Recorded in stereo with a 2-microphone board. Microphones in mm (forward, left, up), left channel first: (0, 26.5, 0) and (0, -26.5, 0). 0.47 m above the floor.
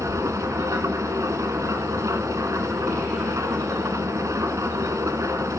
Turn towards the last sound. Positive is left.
turn(degrees=-85)